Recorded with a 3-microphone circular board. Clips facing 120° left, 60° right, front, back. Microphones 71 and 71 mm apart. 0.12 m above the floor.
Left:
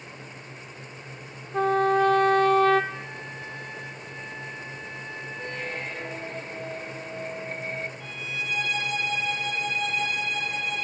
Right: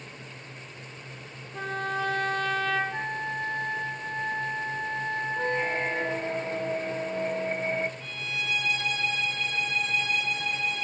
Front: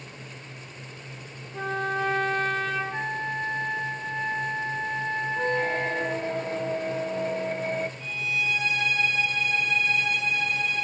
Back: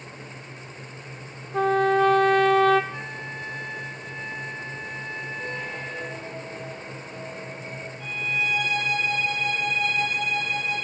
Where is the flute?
45° right, 0.5 m.